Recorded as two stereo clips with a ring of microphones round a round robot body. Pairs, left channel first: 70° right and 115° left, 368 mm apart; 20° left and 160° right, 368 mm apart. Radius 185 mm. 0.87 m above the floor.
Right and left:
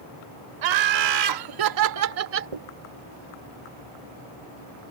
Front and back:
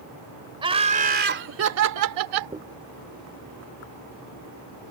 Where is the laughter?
125° left; by 2.5 s 175° left.